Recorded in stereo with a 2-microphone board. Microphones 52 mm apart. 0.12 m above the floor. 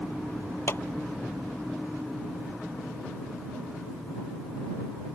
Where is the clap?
50° left (ahead or behind).